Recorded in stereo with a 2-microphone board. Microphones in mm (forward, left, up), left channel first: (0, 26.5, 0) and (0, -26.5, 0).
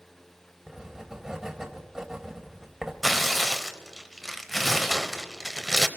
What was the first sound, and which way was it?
Writing, 10° right (ahead or behind).